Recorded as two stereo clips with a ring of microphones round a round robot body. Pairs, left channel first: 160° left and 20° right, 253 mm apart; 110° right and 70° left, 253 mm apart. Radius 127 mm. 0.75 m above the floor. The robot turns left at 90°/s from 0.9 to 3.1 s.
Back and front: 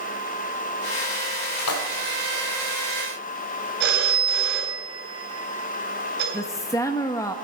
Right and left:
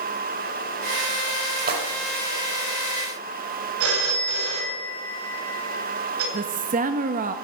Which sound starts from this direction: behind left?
A splash, at 1.6 s.